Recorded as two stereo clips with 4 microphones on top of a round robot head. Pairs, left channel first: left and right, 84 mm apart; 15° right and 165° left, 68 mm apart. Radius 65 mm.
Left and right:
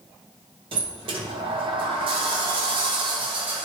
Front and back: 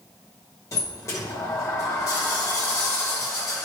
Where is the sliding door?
65° right, 1.1 m.